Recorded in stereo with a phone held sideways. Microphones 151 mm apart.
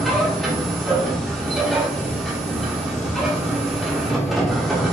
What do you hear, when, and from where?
0.0 s a machine running: centre (ahead or behind), 0.9 m